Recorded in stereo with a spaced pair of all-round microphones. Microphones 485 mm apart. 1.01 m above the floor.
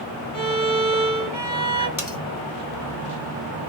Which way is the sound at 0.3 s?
35° right (ahead or behind).